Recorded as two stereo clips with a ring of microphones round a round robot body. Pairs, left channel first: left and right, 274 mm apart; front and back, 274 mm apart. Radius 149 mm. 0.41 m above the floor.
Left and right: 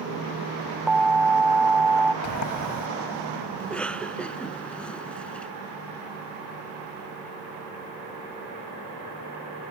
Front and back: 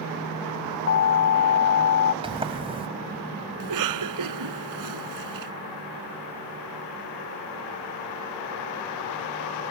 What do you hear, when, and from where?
0.9 s an alarm: straight ahead
2.2 s a sliding door: 110° left
3.6 s a cough: 175° left